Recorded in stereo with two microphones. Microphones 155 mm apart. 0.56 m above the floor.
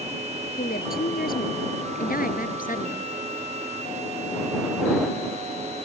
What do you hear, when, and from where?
0.6 s a woman speaking: 75° left (ahead or behind); by 3.1 s 60° left (ahead or behind)